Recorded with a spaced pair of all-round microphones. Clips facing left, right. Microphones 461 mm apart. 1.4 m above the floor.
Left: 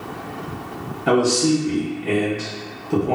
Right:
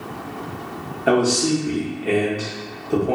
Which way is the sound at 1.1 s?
15° left (ahead or behind).